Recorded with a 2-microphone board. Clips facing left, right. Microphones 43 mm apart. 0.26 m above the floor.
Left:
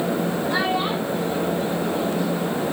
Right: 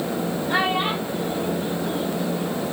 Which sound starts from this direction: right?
A child speaking, at 0.5 s.